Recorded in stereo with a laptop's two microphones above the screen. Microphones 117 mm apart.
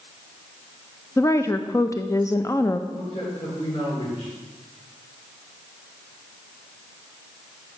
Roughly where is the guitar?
I don't hear a guitar.